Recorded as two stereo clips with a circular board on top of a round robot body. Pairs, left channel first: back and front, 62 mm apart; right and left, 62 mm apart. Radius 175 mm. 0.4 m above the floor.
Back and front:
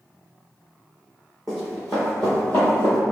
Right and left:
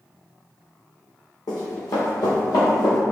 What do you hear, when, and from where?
1.5 s running footsteps: 95° right, 1.0 m; by 3.0 s 140° right, 0.5 m